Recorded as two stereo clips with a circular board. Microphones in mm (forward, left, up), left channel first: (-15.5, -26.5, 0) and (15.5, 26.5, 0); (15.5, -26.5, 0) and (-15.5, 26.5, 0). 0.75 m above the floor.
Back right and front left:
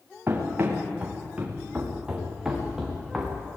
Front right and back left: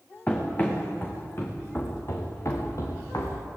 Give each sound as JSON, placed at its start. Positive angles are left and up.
{"t": 0.3, "sound": "running footsteps", "azimuth_deg": 5, "distance_m": 5.0}